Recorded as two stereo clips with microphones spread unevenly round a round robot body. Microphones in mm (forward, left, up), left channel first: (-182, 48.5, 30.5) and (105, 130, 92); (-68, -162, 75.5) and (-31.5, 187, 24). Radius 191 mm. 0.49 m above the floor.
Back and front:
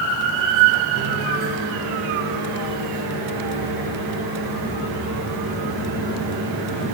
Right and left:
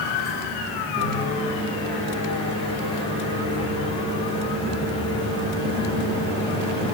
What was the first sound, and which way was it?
A microwave, 20° right.